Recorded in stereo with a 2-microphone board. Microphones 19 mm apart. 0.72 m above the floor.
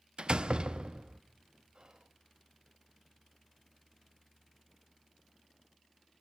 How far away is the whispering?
About 1.0 m.